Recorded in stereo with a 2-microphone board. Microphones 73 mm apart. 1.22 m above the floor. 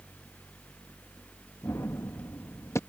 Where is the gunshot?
40° left (ahead or behind).